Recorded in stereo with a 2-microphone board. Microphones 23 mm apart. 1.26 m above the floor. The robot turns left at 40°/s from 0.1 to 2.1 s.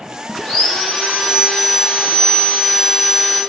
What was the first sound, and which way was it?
Sawing, 155° left.